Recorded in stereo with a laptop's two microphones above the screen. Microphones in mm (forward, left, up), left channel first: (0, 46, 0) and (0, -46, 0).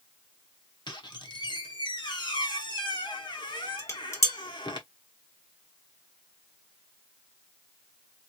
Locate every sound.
0.9 s a squeak: 55° left (ahead or behind), 1.1 m
3.8 s dishes clattering: 30° left (ahead or behind), 1.2 m